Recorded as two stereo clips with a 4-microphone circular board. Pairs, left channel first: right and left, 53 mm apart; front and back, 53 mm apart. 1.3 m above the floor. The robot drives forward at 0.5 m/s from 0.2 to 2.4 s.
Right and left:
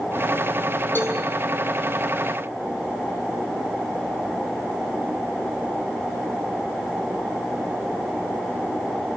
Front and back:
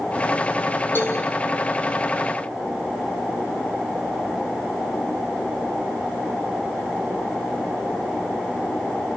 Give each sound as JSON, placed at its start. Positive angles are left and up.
{"t": 0.9, "sound": "a cowbell", "azimuth_deg": -45, "distance_m": 7.5}